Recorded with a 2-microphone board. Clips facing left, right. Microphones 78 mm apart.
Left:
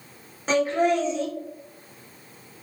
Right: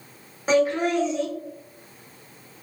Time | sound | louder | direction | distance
0.5 | laughter | right 1 dB | 10° right (ahead or behind) | 1.1 m